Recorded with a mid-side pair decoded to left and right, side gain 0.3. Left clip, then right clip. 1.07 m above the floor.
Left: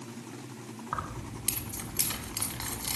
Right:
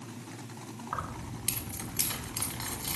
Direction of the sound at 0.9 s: 30° left.